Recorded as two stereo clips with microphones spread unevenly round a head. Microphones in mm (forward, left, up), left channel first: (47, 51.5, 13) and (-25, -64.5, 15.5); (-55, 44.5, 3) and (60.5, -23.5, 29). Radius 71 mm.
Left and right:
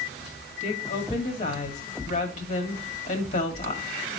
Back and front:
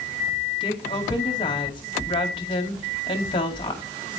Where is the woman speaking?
100° left, 2 m.